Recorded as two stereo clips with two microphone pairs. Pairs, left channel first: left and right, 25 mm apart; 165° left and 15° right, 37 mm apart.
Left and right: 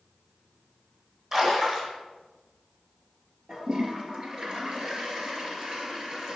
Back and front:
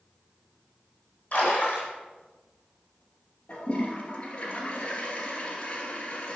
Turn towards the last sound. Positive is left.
turn(degrees=-140)